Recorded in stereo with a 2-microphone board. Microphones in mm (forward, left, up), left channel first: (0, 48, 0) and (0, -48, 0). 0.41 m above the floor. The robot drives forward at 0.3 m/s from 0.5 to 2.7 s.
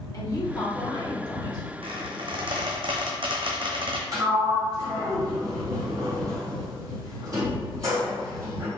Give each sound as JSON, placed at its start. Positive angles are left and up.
{"t": 0.1, "sound": "a woman speaking", "side_deg": 40, "distance_m": 1.8}
{"t": 1.8, "sound": "a squeak", "side_deg": -70, "distance_m": 0.9}
{"t": 4.1, "sound": "a sliding door", "side_deg": -35, "distance_m": 2.0}